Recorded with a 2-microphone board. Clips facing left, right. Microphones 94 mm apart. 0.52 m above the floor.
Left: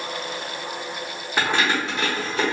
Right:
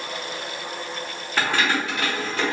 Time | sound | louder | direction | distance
1.4 | keys jangling | left 1 dB | 15° left (ahead or behind) | 0.7 m